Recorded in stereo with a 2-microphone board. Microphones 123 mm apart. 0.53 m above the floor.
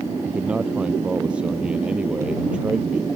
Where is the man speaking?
10° right (ahead or behind).